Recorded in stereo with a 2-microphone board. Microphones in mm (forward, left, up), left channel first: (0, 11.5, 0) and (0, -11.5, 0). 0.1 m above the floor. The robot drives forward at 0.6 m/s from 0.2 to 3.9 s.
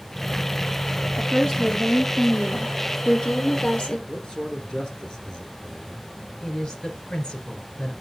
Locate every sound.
1.2 s a woman speaking: 25° left (ahead or behind), 2.5 m; by 4.0 s 45° left (ahead or behind), 1.6 m
4.1 s a man speaking: 30° left (ahead or behind), 1.5 m
6.4 s a woman speaking: 40° left (ahead or behind), 1.8 m